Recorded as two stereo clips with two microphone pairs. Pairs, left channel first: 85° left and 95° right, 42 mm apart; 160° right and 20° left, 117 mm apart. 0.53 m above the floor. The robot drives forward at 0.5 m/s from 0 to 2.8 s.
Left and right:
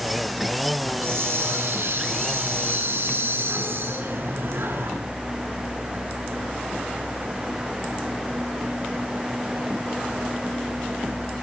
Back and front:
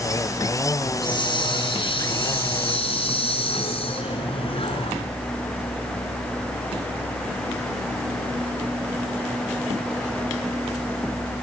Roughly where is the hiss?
Right.